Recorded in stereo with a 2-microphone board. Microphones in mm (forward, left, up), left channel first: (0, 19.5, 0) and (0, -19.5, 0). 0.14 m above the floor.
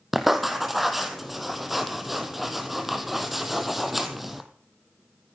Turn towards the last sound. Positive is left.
turn(degrees=-5)  # may be behind; listen again after turning